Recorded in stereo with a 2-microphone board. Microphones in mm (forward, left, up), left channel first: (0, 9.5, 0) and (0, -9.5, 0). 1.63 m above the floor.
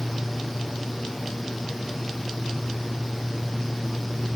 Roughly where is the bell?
I don't hear a bell.